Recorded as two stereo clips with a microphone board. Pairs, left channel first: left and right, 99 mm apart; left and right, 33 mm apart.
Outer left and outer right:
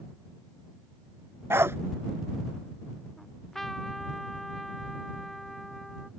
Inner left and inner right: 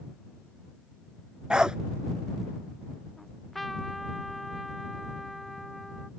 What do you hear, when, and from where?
1.5 s a dog barking: 25° right (ahead or behind)
3.2 s a trumpet: centre (ahead or behind)